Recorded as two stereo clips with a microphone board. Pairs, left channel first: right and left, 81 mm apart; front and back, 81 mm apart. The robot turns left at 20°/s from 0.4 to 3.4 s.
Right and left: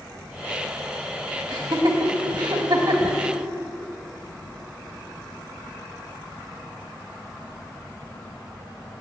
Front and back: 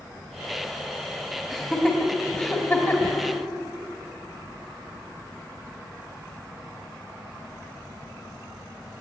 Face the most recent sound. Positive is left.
turn(degrees=50)